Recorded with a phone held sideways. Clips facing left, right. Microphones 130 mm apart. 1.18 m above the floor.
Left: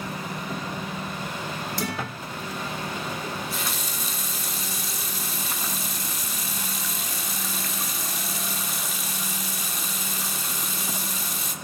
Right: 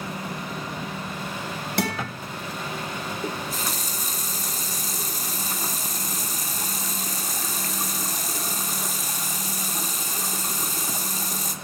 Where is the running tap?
40° right (ahead or behind), 2 m.